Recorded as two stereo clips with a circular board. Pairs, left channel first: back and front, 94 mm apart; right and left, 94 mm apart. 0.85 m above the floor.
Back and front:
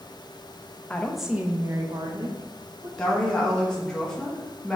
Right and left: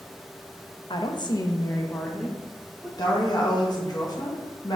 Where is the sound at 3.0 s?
100° right, 1.2 m.